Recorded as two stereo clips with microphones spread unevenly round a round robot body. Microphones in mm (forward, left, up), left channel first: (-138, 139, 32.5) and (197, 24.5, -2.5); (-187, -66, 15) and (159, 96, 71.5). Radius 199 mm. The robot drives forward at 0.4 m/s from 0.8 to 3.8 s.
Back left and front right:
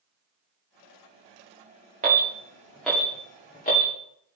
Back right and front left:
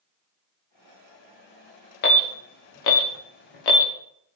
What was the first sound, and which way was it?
An alarm, 90° right.